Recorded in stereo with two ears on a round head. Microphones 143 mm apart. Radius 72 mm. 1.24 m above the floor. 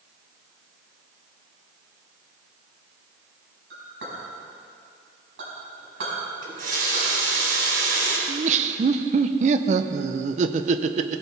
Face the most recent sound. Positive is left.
turn(degrees=-45)  # may be behind; listen again after turning